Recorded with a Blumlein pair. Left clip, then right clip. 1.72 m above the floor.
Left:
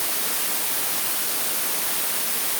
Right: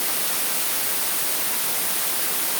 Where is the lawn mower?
I don't hear a lawn mower.